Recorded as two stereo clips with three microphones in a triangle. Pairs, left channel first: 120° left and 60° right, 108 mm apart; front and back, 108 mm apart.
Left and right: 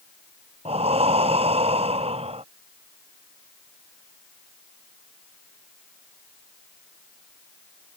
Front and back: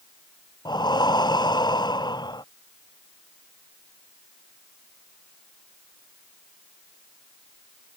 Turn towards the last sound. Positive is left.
turn(degrees=-45)